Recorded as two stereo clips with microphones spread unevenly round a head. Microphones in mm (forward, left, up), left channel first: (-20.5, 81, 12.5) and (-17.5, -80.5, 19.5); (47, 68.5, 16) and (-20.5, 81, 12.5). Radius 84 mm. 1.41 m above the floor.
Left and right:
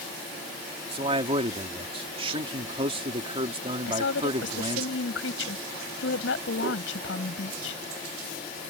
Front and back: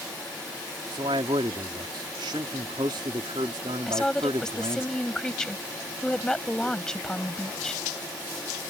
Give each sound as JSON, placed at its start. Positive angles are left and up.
{"t": 0.9, "sound": "a man speaking", "azimuth_deg": -145}
{"t": 3.9, "sound": "a woman speaking", "azimuth_deg": 70}